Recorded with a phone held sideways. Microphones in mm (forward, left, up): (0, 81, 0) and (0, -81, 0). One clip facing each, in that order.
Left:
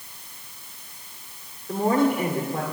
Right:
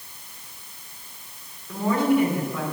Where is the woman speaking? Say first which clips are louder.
Even; 55° left (ahead or behind), 3.5 m.